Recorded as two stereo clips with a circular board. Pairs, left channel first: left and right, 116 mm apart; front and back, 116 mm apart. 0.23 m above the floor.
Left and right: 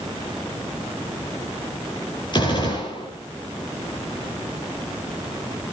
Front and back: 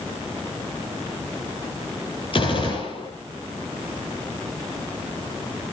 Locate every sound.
2.3 s a gunshot: 40° left, 8 m